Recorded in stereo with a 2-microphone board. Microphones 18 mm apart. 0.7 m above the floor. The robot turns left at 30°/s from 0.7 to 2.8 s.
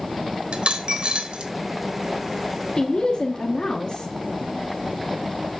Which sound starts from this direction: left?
A woman speaking, at 2.8 s.